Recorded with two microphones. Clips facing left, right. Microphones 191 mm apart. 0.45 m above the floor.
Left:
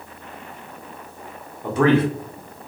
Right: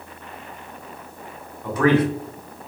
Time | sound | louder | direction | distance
1.6 | a man speaking | left 1 dB | 25° left (ahead or behind) | 0.7 m